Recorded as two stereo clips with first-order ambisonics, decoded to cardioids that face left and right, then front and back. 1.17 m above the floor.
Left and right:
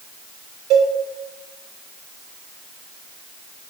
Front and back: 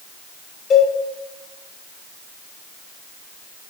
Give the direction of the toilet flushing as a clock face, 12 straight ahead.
I don't hear a toilet flushing.